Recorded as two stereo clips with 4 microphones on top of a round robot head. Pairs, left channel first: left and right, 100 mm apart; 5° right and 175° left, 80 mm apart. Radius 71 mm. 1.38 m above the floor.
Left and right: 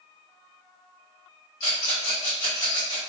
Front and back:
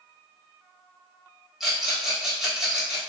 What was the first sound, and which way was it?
A rattle, 85° left.